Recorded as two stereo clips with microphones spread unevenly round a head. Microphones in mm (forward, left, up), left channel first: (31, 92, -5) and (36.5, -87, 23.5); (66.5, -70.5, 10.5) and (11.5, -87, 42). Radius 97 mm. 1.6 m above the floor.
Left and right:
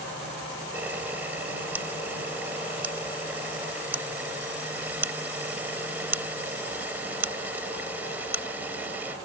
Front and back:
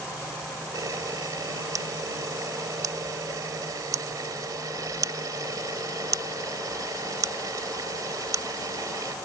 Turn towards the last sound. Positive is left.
turn(degrees=-170)